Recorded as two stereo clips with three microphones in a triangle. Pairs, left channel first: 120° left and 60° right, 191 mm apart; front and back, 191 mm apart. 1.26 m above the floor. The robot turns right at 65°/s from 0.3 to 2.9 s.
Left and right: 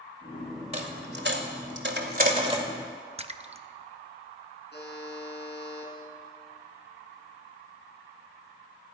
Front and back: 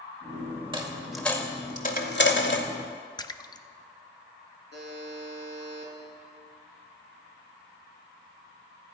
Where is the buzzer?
155° left, 4 m.